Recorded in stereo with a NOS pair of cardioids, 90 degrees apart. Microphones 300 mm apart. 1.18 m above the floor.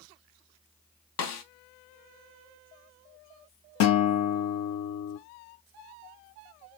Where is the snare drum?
60° left, 0.7 m.